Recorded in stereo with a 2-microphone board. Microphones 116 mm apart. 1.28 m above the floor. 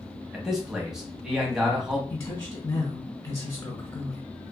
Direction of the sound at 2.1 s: 35° left (ahead or behind).